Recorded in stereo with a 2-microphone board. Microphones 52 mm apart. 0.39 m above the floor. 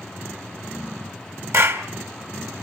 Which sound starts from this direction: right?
A clap, at 1.5 s.